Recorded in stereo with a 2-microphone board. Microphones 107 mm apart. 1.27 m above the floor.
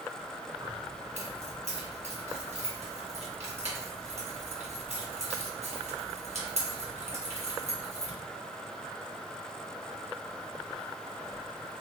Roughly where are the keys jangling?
Right.